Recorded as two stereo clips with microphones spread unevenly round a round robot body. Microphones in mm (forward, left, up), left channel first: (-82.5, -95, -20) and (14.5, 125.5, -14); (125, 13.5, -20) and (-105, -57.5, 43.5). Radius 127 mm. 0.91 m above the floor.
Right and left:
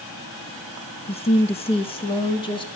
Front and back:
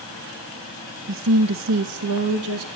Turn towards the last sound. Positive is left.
turn(degrees=180)